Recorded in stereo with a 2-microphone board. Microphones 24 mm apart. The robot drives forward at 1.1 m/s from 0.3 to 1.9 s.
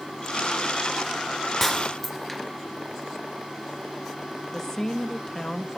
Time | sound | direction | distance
1.6 | breaking glass | 10° left (ahead or behind) | 2 m
4.5 | a woman speaking | 25° left (ahead or behind) | 1.2 m